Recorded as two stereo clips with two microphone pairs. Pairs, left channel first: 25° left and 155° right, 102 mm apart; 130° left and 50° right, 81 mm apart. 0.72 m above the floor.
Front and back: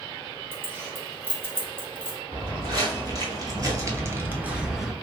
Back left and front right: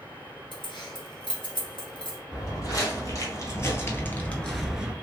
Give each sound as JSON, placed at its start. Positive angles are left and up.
{"t": 0.5, "sound": "keys jangling", "azimuth_deg": 135, "distance_m": 0.9}
{"t": 2.3, "sound": "footsteps", "azimuth_deg": 160, "distance_m": 1.7}